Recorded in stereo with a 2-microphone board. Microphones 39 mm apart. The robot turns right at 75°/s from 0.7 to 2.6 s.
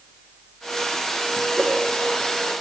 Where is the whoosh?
30° right (ahead or behind), 5.5 m; by 1.8 s 15° right (ahead or behind), 5.5 m.